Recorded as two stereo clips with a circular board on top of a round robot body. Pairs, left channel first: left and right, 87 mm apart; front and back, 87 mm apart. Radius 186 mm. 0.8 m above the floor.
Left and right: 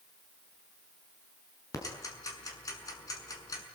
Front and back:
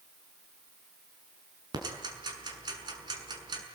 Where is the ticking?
140° left, 6 m.